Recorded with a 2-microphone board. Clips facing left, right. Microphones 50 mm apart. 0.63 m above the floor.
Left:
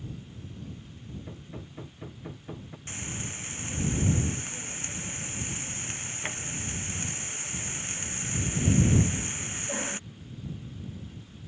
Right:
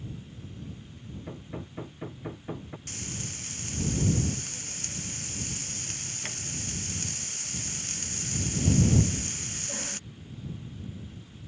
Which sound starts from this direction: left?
Frying, at 2.9 s.